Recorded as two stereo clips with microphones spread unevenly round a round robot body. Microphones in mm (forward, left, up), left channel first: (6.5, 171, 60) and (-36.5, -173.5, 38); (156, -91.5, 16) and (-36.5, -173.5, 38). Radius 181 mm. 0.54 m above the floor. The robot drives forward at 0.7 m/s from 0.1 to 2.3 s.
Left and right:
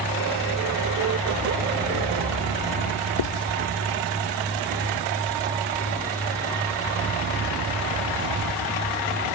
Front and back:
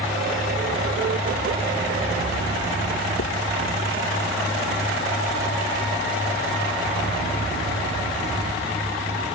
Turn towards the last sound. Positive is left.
turn(degrees=55)